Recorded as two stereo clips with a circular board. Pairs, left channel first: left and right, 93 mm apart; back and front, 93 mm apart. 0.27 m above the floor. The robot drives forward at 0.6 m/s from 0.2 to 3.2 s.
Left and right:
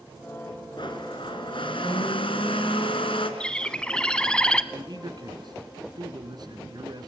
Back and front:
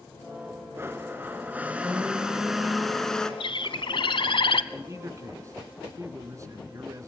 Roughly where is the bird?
Behind.